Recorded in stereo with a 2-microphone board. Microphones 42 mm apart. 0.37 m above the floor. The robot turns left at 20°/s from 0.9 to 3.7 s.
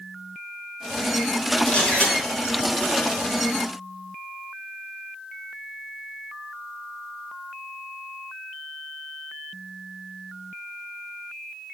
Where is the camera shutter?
25° left (ahead or behind), 5 m; by 2.1 s 30° left (ahead or behind), 5 m.